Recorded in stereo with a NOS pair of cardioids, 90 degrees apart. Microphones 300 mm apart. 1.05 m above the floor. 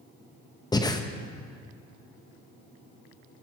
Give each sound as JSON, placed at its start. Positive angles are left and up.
{"t": 0.7, "sound": "breathing", "azimuth_deg": 15, "distance_m": 0.7}